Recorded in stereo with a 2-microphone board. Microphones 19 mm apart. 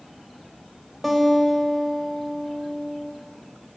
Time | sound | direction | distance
1.0 | a guitar | 5° left (ahead or behind) | 0.8 m